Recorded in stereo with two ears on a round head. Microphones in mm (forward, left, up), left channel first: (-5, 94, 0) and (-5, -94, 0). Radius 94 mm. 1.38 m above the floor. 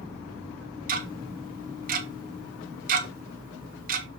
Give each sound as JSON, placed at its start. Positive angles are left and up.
{"t": 0.9, "sound": "ticking", "side_deg": -40, "distance_m": 1.4}